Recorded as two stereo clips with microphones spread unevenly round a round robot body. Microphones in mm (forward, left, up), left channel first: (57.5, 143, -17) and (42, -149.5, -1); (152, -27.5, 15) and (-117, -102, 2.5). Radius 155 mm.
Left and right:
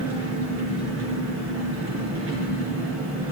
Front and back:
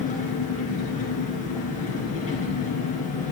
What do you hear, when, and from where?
0.0 s an engine running: 50° right, 3.5 m